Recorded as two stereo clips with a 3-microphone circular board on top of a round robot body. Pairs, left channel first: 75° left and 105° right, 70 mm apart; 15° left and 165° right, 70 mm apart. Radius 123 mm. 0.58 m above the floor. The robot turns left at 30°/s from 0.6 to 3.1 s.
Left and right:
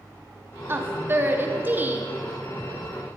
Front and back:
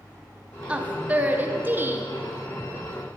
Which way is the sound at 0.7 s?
105° right.